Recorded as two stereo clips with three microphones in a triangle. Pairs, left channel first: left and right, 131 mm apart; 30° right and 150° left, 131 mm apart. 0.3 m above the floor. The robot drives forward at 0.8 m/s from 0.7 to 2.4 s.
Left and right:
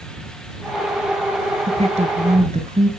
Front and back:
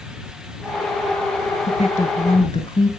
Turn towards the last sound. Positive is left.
turn(degrees=-85)